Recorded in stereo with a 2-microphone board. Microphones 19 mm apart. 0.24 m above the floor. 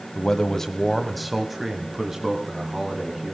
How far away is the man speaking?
About 1.2 m.